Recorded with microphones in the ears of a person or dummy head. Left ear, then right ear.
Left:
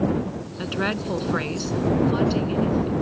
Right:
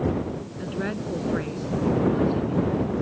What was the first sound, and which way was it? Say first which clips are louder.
A woman speaking: left 6 dB; 40° left (ahead or behind).